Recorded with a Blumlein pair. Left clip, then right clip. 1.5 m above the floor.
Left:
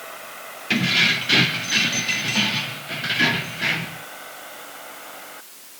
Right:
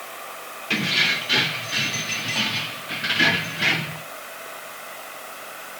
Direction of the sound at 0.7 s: 70° left.